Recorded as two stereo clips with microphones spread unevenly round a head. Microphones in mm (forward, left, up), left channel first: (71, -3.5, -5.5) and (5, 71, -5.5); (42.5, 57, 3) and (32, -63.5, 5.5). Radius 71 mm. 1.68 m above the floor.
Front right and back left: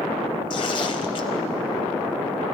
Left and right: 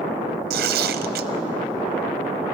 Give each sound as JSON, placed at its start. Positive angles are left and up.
{"t": 0.5, "sound": "tearing paper", "azimuth_deg": -110, "distance_m": 0.7}